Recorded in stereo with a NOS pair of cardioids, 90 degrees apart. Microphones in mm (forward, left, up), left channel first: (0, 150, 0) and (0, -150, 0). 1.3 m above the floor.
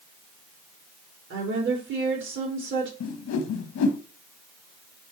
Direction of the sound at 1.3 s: 40° right.